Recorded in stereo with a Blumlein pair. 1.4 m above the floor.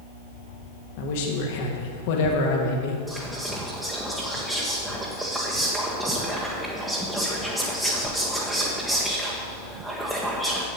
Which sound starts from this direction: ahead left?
A man speaking, at 1.0 s.